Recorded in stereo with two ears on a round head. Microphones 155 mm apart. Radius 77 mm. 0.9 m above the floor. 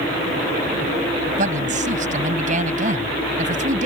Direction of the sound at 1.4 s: 45° right (ahead or behind).